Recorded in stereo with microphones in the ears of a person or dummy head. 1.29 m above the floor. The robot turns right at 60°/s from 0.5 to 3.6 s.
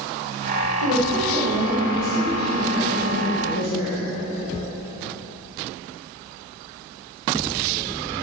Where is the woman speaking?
120° left, 1.2 m; by 4.0 s 70° right, 1.2 m.